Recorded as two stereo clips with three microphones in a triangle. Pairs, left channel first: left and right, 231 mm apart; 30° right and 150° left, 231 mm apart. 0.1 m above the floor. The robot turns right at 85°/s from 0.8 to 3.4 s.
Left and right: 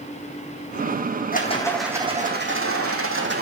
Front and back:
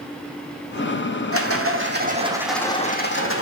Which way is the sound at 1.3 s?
140° left.